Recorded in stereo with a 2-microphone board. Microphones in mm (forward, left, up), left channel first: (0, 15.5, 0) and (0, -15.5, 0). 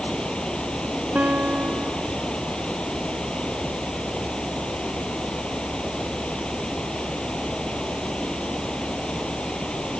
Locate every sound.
0.0 s running water: 30° left (ahead or behind)
1.1 s a guitar: 70° right (ahead or behind)